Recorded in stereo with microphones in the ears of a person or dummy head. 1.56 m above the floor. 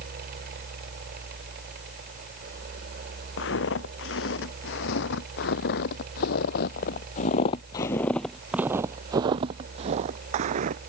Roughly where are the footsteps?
Left.